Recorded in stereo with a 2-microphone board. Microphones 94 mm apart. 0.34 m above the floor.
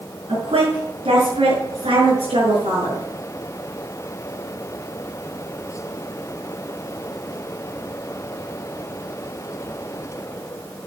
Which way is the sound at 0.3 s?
75° right (ahead or behind).